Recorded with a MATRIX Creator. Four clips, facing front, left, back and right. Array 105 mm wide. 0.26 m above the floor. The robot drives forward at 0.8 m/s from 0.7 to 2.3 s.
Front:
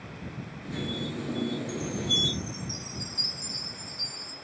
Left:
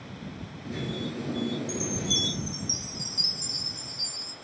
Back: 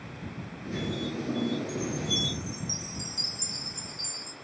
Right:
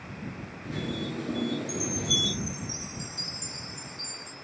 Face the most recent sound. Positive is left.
turn(degrees=95)